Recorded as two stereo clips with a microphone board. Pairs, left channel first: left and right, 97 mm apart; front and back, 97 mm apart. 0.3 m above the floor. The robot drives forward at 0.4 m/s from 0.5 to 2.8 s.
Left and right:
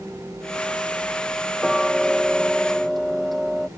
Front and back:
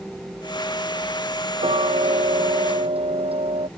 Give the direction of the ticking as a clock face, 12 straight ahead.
6 o'clock.